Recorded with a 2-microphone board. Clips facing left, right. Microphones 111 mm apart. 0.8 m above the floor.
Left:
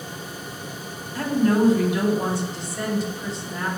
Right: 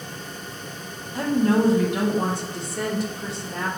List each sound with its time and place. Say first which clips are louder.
1.1 s a woman speaking: even; 15° right (ahead or behind), 1.5 m; by 3.7 s 70° right (ahead or behind), 2.5 m